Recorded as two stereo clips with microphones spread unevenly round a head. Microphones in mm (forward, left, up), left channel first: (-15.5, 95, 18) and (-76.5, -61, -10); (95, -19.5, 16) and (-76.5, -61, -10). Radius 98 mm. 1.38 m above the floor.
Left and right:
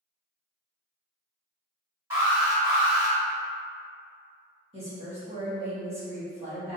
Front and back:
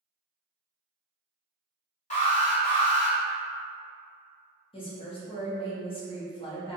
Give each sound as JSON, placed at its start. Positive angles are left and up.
{"t": 2.1, "sound": "an alarm", "azimuth_deg": -40, "distance_m": 1.7}
{"t": 4.7, "sound": "a woman speaking", "azimuth_deg": -50, "distance_m": 1.2}